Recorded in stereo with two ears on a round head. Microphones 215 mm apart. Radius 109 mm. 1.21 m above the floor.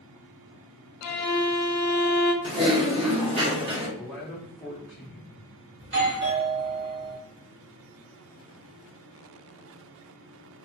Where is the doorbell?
50° right (ahead or behind), 1.3 m.